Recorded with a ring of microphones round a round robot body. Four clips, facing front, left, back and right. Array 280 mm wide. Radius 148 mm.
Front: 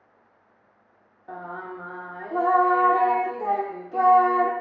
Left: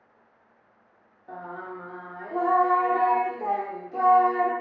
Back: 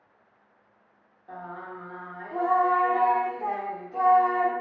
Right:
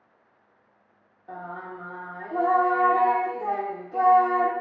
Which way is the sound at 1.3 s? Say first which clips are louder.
Even, front 3 dB; 5° left.